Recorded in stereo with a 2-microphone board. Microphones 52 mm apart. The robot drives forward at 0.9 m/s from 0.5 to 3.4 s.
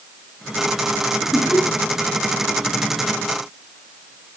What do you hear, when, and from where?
1.3 s laughter: 10° left (ahead or behind), 8 m